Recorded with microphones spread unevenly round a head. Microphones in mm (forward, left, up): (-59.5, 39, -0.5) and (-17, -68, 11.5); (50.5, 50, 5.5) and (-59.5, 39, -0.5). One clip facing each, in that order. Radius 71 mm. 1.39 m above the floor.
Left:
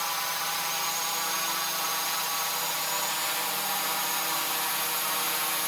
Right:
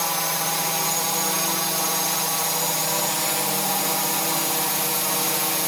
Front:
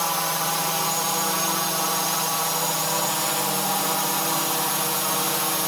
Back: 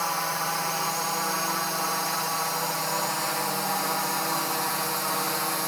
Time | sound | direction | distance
0.0 | a drone | 65° right | ?